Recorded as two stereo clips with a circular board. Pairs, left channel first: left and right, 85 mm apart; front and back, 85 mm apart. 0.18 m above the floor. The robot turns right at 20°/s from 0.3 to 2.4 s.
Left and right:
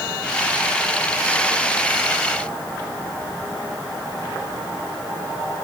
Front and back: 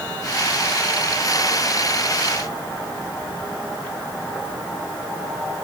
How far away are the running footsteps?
No running footsteps in this recording.